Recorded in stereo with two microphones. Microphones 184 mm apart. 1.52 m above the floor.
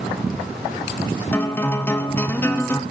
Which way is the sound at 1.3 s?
10° left (ahead or behind).